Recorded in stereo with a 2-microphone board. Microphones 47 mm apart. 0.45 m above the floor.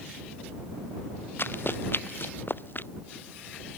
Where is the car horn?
I don't hear a car horn.